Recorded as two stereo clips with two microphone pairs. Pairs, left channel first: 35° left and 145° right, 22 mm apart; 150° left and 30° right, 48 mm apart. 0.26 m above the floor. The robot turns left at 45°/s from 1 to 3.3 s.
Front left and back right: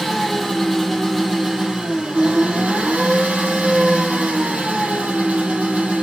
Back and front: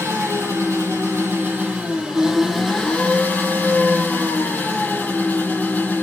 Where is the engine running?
55° right, 8 m; by 6.0 s 160° right, 8 m.